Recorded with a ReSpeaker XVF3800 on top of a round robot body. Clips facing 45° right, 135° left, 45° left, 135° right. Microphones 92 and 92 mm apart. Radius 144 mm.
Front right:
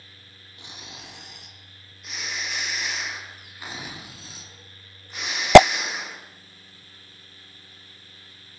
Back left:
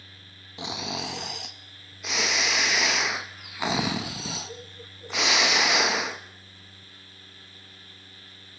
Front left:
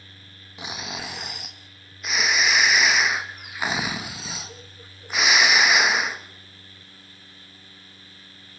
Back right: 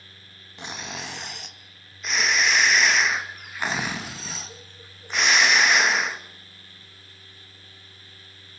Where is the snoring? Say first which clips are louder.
Back left 13 dB, front left 1 dB; 130° left, 1.1 m.